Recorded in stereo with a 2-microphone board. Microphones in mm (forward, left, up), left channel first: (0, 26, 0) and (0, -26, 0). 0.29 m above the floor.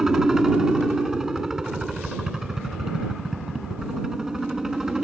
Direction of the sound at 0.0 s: 10° right (ahead or behind).